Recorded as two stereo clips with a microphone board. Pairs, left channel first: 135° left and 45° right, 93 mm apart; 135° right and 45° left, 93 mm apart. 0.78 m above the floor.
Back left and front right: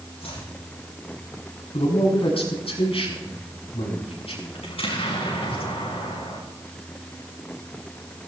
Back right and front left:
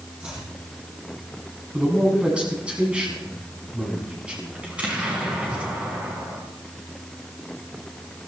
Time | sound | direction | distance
0.2 | chopping | 120° left | 7.5 m
1.7 | a man speaking | 120° left | 6.5 m
4.6 | an explosion | 120° left | 6 m